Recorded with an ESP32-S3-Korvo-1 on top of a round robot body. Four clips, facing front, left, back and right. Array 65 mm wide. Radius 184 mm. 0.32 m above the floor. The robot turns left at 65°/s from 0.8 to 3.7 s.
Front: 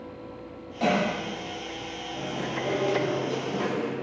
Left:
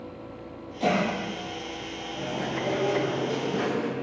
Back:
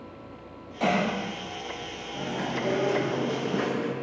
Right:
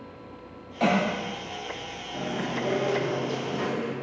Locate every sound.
0.8 s a cough: 105° right, 3.5 m; by 1.1 s 125° right, 3.5 m
2.1 s chewing: 105° right, 1.5 m; by 3.9 s 155° left, 1.5 m